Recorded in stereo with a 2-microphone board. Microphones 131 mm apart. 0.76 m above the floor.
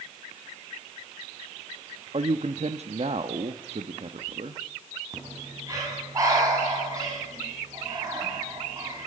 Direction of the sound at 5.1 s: 25° right (ahead or behind).